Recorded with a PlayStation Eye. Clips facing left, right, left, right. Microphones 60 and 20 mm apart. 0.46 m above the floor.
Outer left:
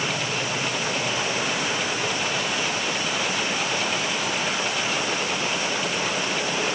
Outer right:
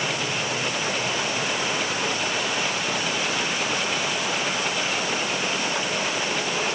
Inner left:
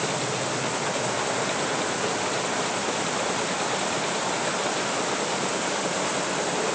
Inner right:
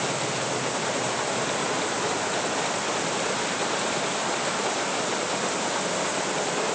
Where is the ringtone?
No ringtone in this recording.